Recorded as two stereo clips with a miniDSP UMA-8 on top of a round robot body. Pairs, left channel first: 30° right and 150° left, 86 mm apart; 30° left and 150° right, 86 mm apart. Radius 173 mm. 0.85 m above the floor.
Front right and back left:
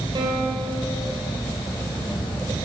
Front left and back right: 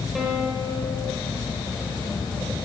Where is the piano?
120° left, 4 m.